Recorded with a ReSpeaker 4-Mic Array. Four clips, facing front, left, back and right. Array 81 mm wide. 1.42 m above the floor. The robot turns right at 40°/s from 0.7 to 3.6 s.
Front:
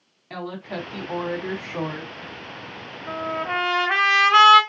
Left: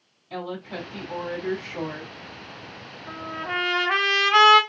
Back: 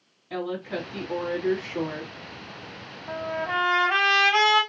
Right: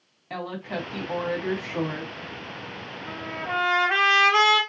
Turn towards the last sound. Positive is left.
turn(degrees=30)